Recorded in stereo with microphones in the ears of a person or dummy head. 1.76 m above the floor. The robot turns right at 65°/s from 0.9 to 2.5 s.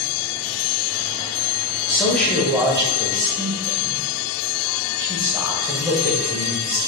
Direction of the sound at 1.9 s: 155° left.